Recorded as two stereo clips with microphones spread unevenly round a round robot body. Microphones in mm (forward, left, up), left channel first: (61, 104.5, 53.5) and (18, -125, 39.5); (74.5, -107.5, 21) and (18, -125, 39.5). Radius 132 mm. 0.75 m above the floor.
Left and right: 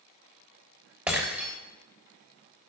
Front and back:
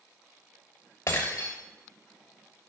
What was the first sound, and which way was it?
Breaking glass, 15° right.